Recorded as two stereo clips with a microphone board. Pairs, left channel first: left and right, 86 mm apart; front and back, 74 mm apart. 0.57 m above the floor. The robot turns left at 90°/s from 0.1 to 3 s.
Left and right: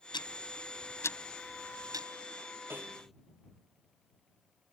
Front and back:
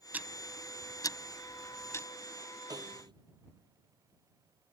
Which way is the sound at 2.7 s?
155° right.